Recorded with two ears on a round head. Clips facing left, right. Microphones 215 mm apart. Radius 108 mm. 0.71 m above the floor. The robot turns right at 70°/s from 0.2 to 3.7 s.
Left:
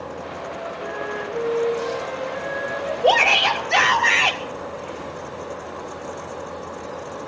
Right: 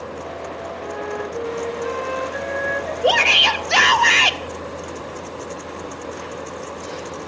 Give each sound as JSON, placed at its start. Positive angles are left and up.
{"t": 0.8, "sound": "a flute", "azimuth_deg": 145, "distance_m": 4.5}
{"t": 3.0, "sound": "a shout", "azimuth_deg": -165, "distance_m": 1.7}